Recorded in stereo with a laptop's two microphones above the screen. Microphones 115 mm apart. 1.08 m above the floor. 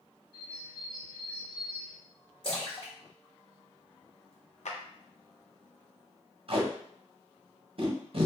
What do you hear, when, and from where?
0.3 s a bird: 40° right (ahead or behind), 0.9 m
2.4 s a splash: 50° left (ahead or behind), 1.4 m
4.7 s a clap: 75° left (ahead or behind), 0.5 m
6.5 s tape being pulled: 50° right (ahead or behind), 0.6 m